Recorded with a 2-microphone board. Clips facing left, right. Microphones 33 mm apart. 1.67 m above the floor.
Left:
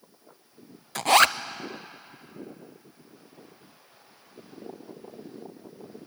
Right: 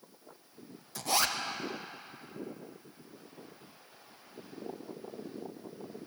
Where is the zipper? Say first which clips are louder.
Left 12 dB; 65° left (ahead or behind), 0.6 m.